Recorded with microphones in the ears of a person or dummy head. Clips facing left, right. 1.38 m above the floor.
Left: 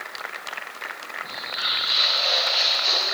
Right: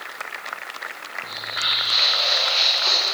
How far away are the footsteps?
About 5 m.